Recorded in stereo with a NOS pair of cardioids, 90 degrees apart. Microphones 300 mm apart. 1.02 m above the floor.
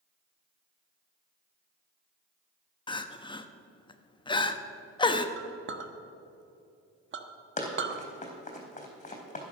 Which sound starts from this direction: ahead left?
Running footsteps, at 7.6 s.